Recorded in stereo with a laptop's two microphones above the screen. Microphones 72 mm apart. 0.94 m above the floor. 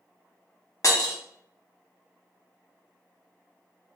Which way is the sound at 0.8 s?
55° left (ahead or behind).